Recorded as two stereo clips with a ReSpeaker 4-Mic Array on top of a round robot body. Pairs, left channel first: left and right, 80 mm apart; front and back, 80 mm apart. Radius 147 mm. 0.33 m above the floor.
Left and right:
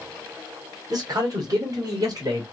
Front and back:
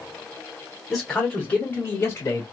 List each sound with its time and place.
0.9 s a man speaking: 90° right, 1.9 m; by 2.4 s 50° right, 2.5 m